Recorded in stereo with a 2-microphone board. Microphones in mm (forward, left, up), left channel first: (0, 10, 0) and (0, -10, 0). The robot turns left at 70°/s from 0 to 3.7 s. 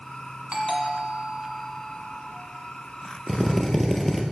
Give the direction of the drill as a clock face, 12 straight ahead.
6 o'clock.